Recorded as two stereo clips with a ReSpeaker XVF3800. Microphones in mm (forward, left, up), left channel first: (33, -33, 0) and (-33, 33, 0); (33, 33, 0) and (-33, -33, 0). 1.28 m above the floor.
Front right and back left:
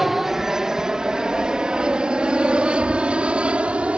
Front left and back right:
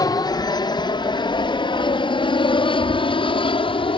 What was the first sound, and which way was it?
An aircraft, 50° left.